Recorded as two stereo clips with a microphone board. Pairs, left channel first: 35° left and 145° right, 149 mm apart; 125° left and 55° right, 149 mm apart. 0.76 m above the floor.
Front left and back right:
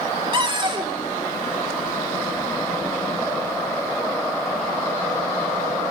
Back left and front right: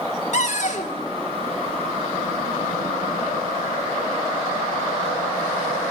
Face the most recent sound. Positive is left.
turn(degrees=160)